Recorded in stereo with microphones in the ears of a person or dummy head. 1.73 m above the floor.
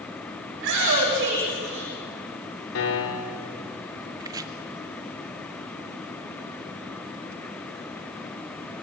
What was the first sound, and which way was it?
A shout, 60° right (ahead or behind).